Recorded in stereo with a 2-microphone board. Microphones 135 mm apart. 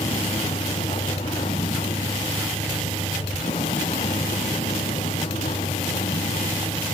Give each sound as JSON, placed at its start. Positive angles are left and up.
{"t": 0.0, "sound": "a vehicle", "side_deg": 45}